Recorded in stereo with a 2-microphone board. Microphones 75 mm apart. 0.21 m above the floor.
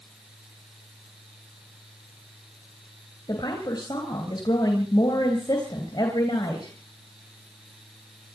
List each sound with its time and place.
3.3 s a woman speaking: 70° left (ahead or behind), 3 m